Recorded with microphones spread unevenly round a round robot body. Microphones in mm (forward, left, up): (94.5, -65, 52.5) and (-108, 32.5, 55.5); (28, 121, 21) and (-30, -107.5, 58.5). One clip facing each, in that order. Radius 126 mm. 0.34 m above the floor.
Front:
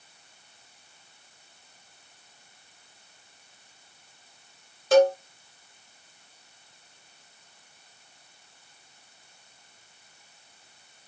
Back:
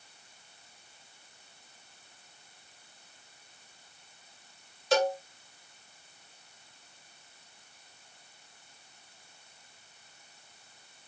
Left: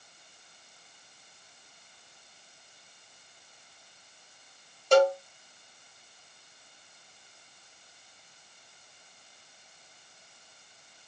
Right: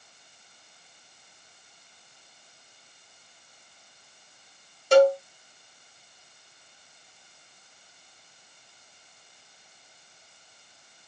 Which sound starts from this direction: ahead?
A cowbell, at 4.9 s.